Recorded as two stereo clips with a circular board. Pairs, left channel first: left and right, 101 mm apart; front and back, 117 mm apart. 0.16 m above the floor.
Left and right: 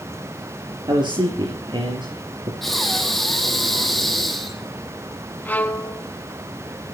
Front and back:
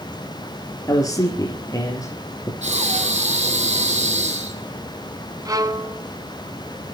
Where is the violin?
150° left, 1.1 m.